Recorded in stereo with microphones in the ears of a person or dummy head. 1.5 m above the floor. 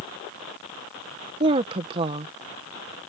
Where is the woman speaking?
25° right (ahead or behind).